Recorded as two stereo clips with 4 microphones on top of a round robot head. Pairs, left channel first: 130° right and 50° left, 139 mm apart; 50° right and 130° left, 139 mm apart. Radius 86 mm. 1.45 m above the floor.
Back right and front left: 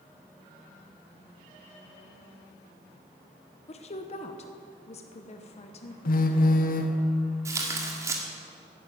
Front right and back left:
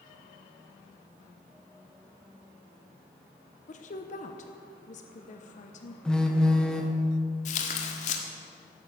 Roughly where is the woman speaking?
Right.